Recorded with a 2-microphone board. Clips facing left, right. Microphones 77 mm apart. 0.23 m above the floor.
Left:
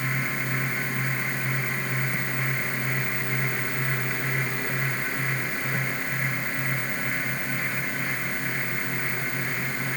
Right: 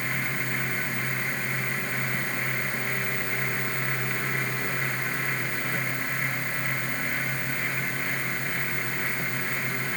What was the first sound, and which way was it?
Only background noise.